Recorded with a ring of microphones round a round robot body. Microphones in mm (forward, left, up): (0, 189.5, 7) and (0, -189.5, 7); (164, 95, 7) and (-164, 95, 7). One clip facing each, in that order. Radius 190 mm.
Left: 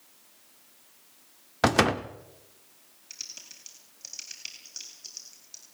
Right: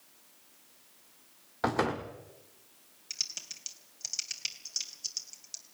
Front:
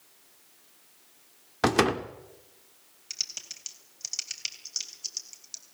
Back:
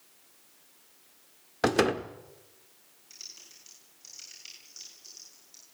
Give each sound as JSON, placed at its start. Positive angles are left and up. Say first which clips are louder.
{"t": 1.6, "sound": "a door slam", "louder": "left 6 dB, front 1 dB", "azimuth_deg": 75, "distance_m": 1.4}
{"t": 3.1, "sound": "typing on a keyboard", "louder": "left 1 dB, front 4 dB", "azimuth_deg": -25, "distance_m": 3.0}